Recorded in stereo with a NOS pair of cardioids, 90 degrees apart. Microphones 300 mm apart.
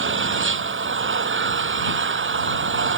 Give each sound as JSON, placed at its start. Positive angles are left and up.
{"t": 0.0, "sound": "an engine running", "azimuth_deg": -40}